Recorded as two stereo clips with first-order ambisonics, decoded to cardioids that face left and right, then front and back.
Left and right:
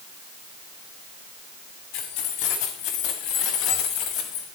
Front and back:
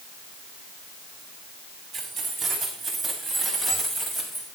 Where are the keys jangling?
100° left, 7 m; by 4.5 s 80° left, 5.5 m.